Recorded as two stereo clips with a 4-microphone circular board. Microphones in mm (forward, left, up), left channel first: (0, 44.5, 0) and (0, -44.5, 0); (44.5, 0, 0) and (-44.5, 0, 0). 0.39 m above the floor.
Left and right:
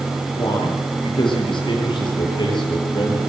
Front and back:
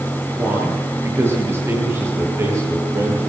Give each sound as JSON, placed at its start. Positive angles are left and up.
{"t": 0.4, "sound": "a man speaking", "azimuth_deg": 115, "distance_m": 9.0}